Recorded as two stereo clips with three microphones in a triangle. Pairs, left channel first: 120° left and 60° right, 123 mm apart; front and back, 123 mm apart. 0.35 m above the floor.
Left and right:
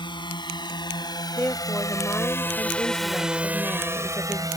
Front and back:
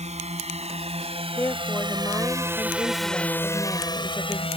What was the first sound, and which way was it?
A drone, 165° left.